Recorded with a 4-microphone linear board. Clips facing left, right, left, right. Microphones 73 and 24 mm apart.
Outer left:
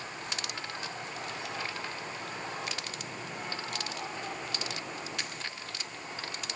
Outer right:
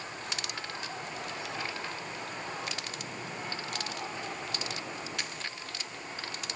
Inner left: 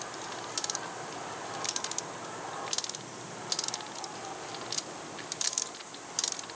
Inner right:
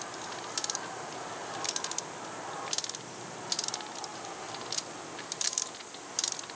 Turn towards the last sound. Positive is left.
No sound to turn to.